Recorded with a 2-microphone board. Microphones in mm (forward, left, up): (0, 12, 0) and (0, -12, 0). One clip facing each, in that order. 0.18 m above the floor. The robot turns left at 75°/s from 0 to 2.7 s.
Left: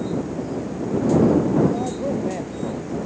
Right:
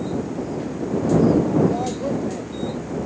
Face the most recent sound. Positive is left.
turn(degrees=135)